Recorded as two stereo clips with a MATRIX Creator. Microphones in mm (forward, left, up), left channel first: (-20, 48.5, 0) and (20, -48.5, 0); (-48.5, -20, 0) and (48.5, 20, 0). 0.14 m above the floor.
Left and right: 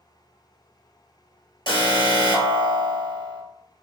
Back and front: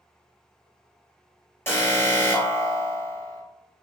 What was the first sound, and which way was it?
An alarm, 140° left.